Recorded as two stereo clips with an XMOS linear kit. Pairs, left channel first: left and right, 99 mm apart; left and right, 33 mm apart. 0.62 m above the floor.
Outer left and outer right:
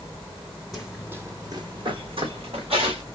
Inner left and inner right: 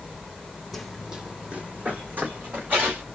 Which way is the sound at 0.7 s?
Centre (ahead or behind).